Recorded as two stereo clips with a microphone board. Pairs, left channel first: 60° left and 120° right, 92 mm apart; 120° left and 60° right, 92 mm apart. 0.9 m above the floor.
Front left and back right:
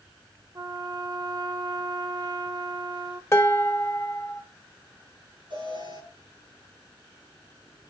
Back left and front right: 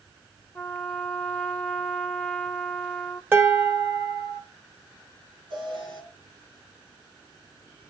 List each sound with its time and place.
0.6 s a trumpet: 165° right, 0.5 m
3.3 s dishes clattering: 5° left, 1.5 m
5.5 s an alarm: 85° right, 8 m